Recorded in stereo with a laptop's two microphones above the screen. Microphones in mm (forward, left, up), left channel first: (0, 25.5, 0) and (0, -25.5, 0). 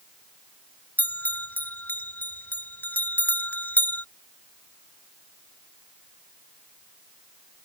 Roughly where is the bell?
Left.